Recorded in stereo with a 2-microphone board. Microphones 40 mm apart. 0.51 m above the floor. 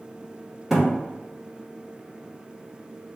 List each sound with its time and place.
0.7 s a thud: 5° right (ahead or behind), 1.2 m